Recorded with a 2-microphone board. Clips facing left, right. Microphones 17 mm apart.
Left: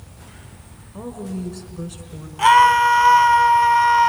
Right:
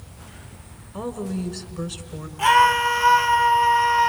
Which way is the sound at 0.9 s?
35° right (ahead or behind).